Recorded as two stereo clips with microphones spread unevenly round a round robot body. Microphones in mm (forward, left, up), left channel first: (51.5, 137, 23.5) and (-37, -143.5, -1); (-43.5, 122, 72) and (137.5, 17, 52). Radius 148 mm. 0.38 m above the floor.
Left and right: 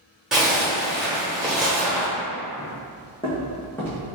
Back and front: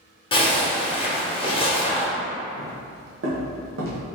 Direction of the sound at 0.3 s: Straight behind.